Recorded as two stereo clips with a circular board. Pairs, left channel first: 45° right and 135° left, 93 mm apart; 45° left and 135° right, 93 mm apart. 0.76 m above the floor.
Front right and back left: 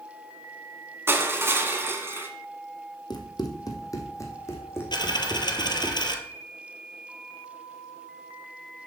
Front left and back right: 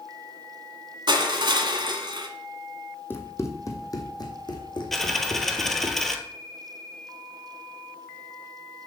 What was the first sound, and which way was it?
Crushing, 165° right.